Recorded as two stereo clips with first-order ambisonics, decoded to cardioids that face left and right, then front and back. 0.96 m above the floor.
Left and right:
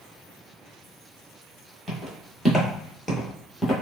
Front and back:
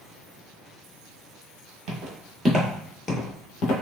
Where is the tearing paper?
No tearing paper in this recording.